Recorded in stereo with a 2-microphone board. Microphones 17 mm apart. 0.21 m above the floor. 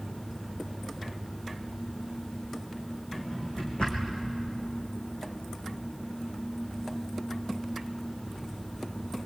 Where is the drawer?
80° left, 4.5 m.